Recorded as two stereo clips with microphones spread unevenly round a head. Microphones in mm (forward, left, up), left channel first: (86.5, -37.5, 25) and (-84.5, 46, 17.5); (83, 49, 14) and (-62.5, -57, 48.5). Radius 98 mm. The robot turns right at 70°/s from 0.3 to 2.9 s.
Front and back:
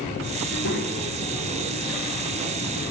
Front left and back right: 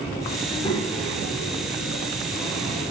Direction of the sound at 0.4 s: 45° right.